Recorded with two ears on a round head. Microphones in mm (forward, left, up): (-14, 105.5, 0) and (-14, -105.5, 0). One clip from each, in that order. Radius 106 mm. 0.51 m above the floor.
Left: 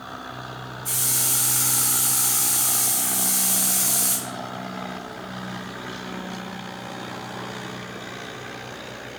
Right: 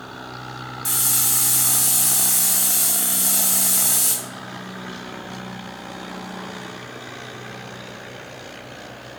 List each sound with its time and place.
0.8 s a hiss: 80° right, 2.5 m